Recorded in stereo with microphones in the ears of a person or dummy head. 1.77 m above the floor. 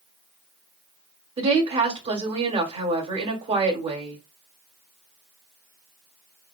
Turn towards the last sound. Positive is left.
turn(degrees=-25)  # may be behind; listen again after turning